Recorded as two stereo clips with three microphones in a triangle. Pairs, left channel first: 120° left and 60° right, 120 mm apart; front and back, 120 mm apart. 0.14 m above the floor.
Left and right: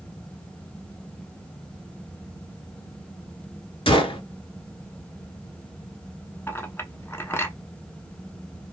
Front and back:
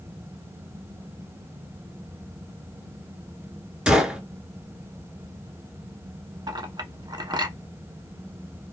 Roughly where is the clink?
Behind.